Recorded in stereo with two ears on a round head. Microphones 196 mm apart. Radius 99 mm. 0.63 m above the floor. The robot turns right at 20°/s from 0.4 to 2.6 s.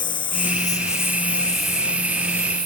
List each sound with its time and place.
0.0 s a lawn mower: 20° left (ahead or behind); by 2.6 s 20° right (ahead or behind)